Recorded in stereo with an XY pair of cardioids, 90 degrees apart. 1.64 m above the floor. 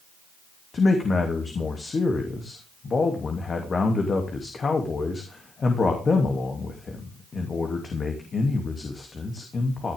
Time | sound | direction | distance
0.7 | a man speaking | 45° left | 3 m